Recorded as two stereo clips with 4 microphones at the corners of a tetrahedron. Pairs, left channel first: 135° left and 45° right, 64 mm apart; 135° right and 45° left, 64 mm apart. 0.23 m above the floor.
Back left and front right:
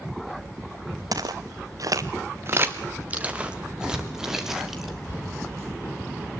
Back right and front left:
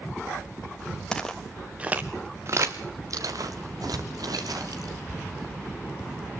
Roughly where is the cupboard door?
Behind left.